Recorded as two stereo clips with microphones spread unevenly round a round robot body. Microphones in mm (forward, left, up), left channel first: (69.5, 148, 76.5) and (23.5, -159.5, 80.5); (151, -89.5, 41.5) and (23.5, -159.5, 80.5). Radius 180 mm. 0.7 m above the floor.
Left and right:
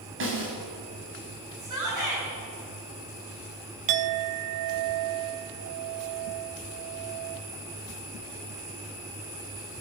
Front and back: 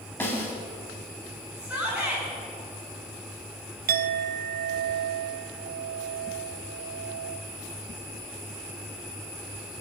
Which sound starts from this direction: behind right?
A clink, at 3.9 s.